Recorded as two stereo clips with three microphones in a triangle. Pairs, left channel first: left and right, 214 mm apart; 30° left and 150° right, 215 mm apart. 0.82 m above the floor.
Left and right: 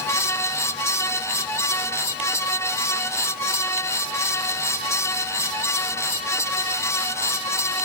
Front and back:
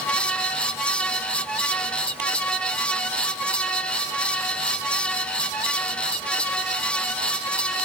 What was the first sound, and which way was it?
Only background noise.